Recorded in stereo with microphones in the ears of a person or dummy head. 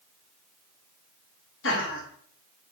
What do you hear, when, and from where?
1.6 s laughter: 55° left (ahead or behind), 1.1 m